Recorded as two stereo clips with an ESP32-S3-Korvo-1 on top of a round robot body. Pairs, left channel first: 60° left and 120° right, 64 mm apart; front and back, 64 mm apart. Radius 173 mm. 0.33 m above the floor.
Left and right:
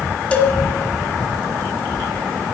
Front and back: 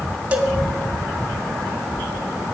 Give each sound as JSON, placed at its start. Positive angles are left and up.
{"t": 0.3, "sound": "a cowbell", "azimuth_deg": 115, "distance_m": 1.8}